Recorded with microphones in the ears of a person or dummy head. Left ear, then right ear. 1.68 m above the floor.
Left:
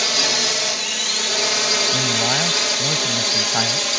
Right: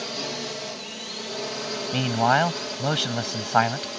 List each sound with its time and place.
0.0 s a drone: 65° left (ahead or behind)
1.9 s a man speaking: 30° right (ahead or behind)